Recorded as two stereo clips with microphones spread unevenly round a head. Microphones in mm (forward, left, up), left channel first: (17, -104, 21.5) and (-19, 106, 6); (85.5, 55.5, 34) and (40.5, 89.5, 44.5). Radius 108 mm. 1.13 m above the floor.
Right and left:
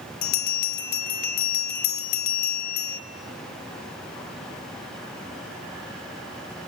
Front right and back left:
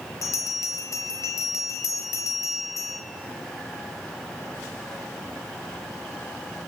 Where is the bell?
80° right, 1.2 m.